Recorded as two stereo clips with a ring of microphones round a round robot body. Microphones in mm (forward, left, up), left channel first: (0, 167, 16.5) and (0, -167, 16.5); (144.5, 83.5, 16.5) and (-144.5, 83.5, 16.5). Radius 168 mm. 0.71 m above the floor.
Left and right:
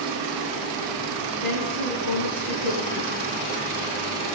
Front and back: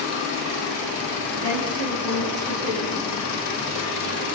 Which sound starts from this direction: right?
A woman speaking, at 1.4 s.